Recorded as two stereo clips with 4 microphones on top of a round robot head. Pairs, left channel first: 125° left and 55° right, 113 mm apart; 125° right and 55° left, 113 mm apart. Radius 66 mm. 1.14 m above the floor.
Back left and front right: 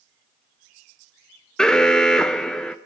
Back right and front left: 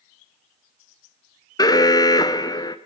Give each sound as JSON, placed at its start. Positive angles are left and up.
{"t": 1.6, "sound": "an alarm", "azimuth_deg": -155, "distance_m": 0.7}